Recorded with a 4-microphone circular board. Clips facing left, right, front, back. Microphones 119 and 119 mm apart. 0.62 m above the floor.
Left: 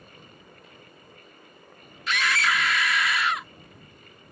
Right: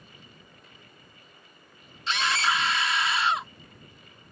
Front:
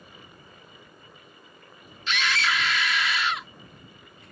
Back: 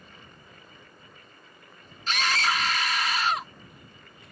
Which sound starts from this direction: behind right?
A scream, at 2.1 s.